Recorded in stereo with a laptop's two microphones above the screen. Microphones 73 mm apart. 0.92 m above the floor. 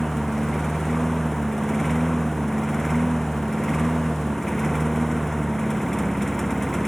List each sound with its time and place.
0.0 s a lawn mower: 5° left (ahead or behind)